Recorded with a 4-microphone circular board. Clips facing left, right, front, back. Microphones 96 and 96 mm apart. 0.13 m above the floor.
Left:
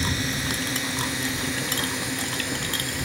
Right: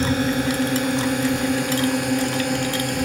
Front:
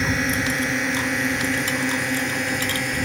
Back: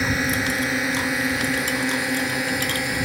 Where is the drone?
90° right; by 3.1 s 95° right.